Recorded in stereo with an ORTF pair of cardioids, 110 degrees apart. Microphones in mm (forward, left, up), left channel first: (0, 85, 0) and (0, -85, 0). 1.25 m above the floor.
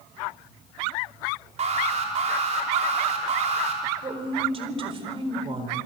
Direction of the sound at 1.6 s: 40° right.